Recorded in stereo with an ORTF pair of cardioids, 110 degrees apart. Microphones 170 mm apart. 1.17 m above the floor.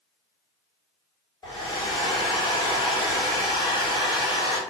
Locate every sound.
1.4 s a hair dryer: 25° left, 1.1 m